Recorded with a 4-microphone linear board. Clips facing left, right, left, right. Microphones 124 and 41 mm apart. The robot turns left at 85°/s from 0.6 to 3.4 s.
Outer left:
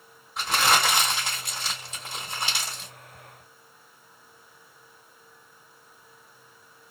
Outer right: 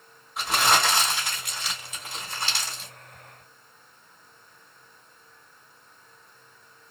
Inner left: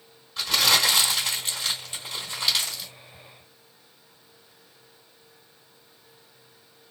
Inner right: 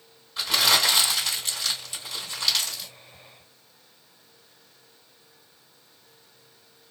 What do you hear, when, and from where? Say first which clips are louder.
0.4 s crumpling: even, even; 5° right (ahead or behind), 1.5 m